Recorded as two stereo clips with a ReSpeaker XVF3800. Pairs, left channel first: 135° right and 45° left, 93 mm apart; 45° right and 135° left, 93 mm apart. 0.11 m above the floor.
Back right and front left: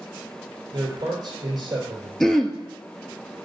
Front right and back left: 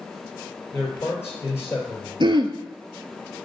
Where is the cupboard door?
No cupboard door in this recording.